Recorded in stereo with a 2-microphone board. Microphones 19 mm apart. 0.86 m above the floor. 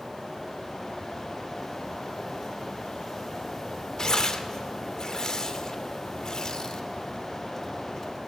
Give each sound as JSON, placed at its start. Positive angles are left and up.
{"t": 4.0, "sound": "tearing paper", "side_deg": 45, "distance_m": 0.6}